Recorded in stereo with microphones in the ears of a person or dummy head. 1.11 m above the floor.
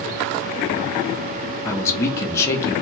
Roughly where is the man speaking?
Centre.